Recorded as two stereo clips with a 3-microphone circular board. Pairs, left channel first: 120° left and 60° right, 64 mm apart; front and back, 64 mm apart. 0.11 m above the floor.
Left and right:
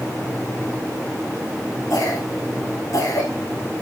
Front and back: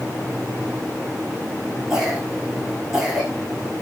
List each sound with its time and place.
1.9 s a cough: 95° left, 6 m